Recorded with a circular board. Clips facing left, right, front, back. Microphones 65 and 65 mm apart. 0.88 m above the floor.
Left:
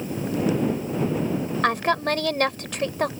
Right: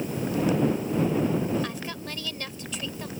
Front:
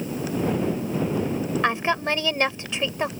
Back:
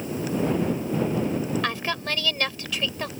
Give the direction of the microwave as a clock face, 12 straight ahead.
No microwave in this recording.